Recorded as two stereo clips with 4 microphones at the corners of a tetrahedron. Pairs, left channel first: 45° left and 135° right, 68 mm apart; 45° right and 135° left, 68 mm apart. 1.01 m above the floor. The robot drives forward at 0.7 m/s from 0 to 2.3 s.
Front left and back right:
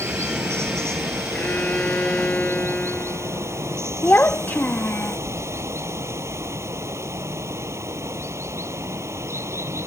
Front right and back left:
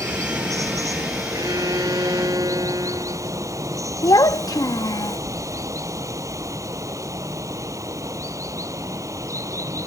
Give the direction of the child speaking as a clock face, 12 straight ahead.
1 o'clock.